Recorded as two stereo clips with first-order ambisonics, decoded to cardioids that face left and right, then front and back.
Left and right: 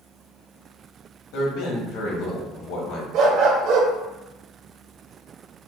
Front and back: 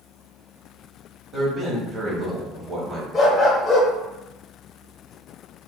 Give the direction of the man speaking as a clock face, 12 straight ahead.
8 o'clock.